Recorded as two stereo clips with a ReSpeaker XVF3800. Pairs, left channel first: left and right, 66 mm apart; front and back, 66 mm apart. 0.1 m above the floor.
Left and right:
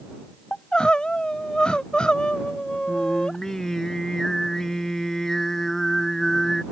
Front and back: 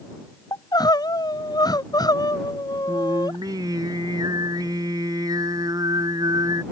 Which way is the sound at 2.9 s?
175° left.